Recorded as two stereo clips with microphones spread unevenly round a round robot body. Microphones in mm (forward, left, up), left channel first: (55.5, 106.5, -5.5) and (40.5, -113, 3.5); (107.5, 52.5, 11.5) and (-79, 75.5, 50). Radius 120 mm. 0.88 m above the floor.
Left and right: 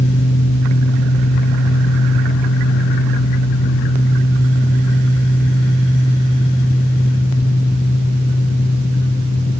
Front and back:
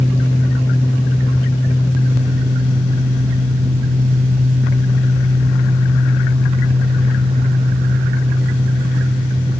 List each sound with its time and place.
Only background noise.